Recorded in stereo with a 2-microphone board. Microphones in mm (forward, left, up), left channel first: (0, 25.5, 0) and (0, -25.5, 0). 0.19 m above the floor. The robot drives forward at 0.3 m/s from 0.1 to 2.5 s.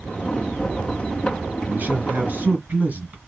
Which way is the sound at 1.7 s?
35° right (ahead or behind).